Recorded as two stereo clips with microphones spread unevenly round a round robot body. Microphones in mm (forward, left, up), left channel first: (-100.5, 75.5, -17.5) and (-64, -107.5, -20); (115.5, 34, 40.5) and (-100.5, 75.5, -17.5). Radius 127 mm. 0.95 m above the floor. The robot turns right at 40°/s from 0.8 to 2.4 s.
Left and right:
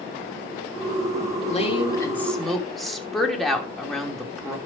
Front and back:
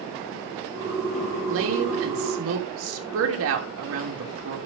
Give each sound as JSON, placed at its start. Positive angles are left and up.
{"t": 1.5, "sound": "a woman speaking", "azimuth_deg": 155, "distance_m": 3.0}